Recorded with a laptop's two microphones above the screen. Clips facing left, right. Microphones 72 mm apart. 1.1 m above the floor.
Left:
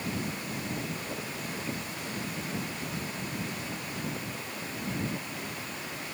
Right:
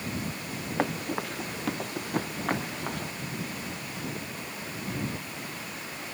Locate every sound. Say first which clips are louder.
0.8 s running footsteps: right 7 dB; 75° right (ahead or behind); by 3.1 s 70° right (ahead or behind)